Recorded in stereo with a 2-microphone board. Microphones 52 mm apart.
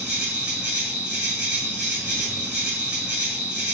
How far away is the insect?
About 1.1 m.